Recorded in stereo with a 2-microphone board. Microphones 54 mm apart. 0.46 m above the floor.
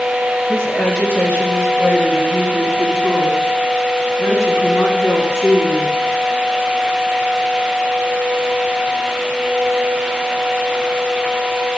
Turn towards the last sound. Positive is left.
turn(degrees=65)  # may be behind; listen again after turning